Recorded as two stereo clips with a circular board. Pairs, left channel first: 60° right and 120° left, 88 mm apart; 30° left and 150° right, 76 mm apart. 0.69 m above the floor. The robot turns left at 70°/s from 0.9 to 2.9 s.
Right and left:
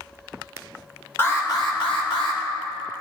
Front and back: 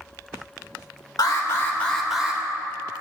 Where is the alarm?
Straight ahead, 1.8 m; by 2.4 s 85° right, 1.8 m.